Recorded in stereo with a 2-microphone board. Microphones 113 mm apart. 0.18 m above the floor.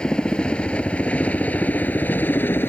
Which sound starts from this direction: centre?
A helicopter, at 0.0 s.